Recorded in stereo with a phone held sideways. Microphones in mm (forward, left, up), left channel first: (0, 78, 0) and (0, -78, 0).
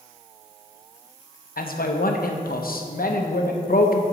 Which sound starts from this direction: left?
A man speaking, at 1.6 s.